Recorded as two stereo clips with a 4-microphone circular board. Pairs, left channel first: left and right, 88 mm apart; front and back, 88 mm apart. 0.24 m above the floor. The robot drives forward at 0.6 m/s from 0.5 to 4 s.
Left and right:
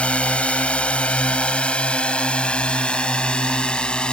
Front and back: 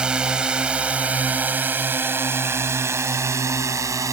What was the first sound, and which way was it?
A drone, 130° left.